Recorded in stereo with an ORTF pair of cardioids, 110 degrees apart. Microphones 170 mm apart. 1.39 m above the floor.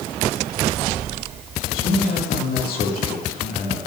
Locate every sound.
1.7 s a man speaking: 60° left, 2 m